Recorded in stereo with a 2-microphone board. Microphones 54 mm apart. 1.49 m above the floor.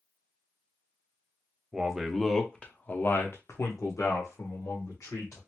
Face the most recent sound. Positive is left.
turn(degrees=85)